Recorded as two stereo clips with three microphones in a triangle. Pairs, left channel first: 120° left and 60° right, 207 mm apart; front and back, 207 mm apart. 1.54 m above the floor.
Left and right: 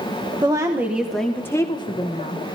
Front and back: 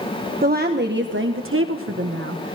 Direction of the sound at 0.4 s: 130° right.